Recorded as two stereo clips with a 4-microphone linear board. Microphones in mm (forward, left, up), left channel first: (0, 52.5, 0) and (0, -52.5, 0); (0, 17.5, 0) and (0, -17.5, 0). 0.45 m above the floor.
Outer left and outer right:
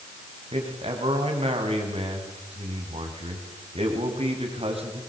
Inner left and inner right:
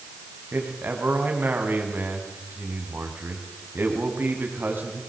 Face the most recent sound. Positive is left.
turn(degrees=-70)  # may be behind; listen again after turning